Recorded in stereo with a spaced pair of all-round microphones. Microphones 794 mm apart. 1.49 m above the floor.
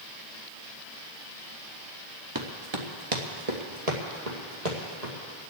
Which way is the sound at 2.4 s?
25° right (ahead or behind).